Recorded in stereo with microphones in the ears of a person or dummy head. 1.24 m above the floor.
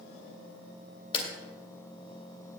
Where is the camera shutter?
30° left (ahead or behind), 2.5 m.